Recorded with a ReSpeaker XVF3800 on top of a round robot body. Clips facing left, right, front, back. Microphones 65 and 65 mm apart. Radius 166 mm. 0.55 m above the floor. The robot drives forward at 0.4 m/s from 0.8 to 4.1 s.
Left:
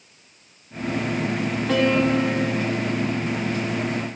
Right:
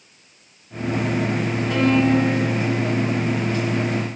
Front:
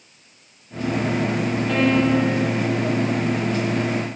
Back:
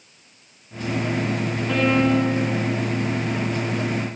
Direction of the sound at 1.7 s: 95° left.